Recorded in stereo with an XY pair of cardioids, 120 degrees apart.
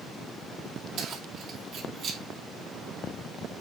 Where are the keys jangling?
65° right, 2.5 m; by 2.2 s 55° right, 1.5 m.